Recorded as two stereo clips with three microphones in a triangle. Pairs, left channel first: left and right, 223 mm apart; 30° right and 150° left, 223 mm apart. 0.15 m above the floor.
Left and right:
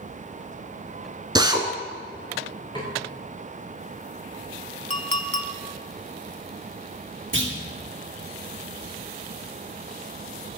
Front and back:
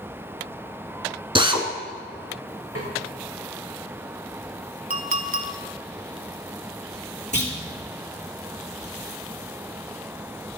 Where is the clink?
125° left, 0.8 m.